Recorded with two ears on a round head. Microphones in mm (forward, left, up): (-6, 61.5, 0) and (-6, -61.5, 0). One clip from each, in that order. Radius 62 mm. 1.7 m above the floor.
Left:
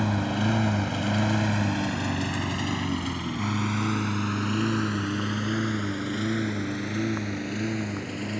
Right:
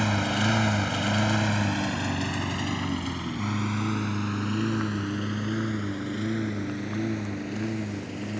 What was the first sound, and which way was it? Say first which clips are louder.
A lawn mower: right 2 dB; 55° right (ahead or behind).